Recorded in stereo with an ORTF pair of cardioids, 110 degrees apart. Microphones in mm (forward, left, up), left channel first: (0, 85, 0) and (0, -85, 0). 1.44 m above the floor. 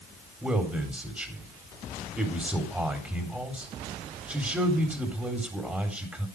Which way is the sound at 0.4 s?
10° right.